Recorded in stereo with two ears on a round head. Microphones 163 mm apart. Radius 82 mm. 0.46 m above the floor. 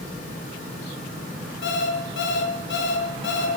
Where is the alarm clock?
65° left (ahead or behind), 2.5 m.